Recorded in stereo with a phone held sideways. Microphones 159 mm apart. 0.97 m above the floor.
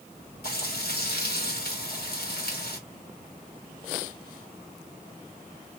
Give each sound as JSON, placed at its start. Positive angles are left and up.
{"t": 0.4, "sound": "frying", "side_deg": 75, "distance_m": 1.9}